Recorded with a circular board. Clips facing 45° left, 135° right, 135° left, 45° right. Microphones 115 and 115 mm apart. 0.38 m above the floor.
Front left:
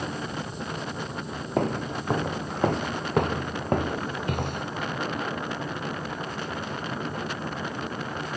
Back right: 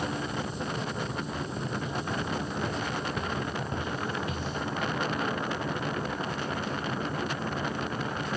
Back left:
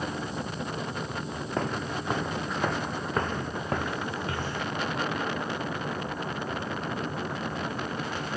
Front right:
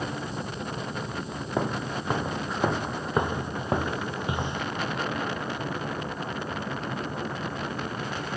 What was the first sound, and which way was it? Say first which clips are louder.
Footsteps: front left 6 dB, front right 2 dB; 35° left.